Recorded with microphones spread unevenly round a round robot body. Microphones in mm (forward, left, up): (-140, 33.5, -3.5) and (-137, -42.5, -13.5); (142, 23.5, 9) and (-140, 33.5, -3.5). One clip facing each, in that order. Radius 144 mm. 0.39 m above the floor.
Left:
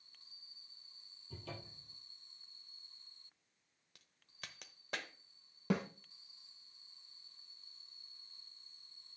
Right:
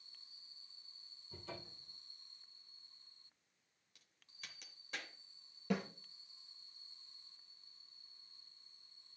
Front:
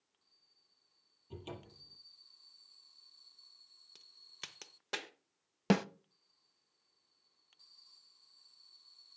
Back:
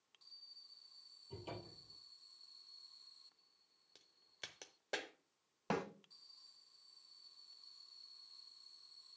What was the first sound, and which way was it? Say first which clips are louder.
A cupboard door: left 1 dB, front 2 dB; 55° left.